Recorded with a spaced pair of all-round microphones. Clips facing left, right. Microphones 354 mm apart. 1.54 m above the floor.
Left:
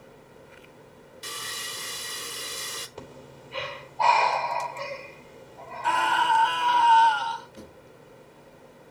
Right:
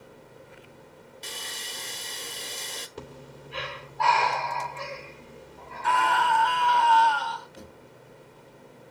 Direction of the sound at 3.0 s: 20° right (ahead or behind).